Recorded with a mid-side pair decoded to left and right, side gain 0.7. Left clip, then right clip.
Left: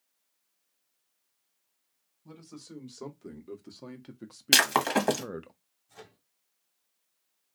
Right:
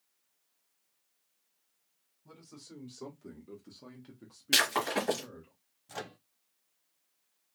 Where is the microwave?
60° right, 0.5 m.